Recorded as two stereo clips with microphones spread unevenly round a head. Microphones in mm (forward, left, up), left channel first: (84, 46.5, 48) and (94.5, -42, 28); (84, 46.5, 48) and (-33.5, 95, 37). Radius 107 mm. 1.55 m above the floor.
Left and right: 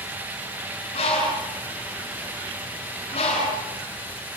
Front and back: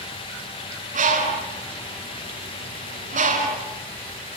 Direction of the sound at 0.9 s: 145° left.